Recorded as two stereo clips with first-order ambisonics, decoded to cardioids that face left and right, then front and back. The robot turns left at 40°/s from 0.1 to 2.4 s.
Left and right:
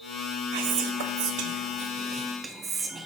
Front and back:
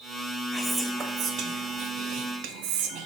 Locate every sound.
0.5 s whispering: 90° right, 0.8 m; by 3.1 s 165° right, 0.8 m